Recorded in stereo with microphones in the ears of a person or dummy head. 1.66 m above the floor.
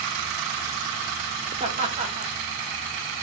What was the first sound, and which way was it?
Laughter, 40° right (ahead or behind).